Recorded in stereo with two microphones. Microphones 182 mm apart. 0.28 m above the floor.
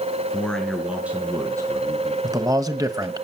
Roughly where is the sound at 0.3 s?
Centre.